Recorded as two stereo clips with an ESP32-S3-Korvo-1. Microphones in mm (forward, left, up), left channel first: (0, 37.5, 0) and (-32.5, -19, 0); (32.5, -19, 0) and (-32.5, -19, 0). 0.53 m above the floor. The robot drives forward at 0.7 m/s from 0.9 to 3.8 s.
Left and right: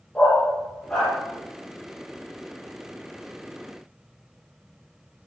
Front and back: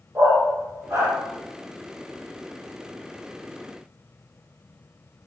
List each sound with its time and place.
0.1 s a dog barking: 130° left, 7 m